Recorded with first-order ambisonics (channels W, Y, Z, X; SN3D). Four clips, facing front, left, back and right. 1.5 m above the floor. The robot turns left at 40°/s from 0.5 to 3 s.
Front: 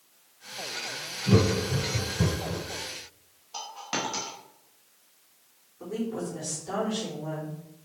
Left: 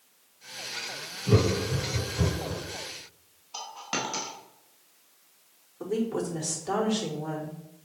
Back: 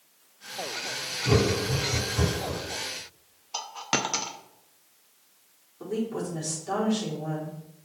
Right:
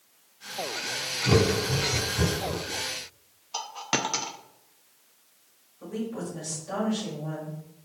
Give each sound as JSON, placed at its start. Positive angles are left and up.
{"t": 1.2, "sound": "laughter", "azimuth_deg": -130, "distance_m": 4.0}
{"t": 3.5, "sound": "a dropped coin", "azimuth_deg": -140, "distance_m": 0.9}
{"t": 5.8, "sound": "a woman speaking", "azimuth_deg": 105, "distance_m": 4.5}